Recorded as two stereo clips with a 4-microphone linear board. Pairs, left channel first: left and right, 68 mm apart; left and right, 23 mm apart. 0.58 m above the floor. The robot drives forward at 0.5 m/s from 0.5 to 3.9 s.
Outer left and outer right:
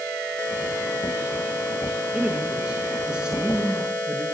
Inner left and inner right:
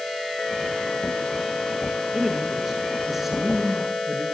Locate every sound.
2.1 s a man speaking: 10° right (ahead or behind), 5.5 m